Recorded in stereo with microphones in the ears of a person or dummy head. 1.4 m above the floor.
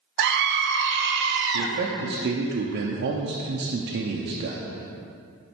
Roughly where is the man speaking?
Right.